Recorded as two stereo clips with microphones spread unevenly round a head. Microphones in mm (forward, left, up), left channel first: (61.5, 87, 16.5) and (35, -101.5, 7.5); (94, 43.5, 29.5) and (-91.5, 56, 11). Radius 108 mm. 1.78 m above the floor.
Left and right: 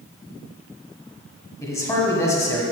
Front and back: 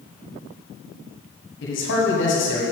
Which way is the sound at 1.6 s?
10° left.